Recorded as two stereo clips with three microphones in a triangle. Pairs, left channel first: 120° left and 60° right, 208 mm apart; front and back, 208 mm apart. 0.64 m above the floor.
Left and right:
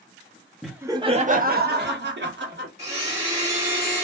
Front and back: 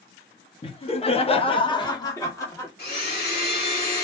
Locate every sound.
0.6 s laughter: 35° left, 0.7 m; by 2.7 s 75° right, 1.6 m
2.8 s a blender: 15° right, 1.5 m